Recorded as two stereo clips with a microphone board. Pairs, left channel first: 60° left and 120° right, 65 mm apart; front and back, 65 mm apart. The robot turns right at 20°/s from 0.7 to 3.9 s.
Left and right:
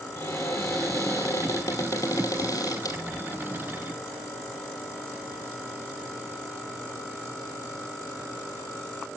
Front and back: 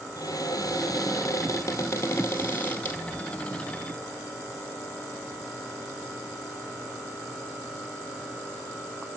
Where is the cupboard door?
20° left, 2 m; by 3.0 s 65° left, 2 m.